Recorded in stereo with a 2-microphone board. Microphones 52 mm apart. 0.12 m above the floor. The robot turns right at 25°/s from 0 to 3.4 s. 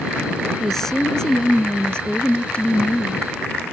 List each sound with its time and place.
0.6 s a woman speaking: 5° left (ahead or behind); by 3.3 s 25° left (ahead or behind)